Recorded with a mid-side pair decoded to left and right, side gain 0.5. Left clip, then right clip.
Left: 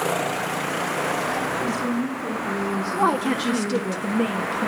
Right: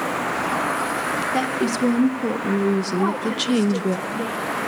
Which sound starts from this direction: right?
A woman speaking, at 1.3 s.